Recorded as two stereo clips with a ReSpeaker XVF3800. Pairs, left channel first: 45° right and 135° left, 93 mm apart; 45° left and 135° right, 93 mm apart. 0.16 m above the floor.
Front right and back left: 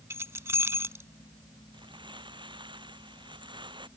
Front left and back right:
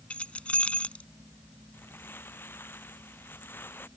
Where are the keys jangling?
110° left.